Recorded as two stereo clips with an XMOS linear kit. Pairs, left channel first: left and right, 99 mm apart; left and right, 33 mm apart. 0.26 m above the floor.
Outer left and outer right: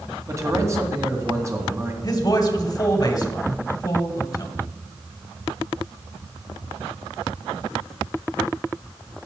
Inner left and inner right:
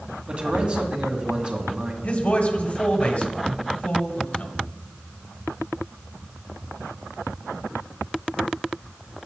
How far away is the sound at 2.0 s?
About 1.8 m.